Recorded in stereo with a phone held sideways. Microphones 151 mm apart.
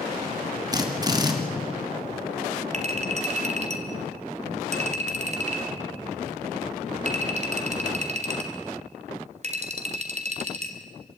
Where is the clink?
45° right (ahead or behind), 2.5 m.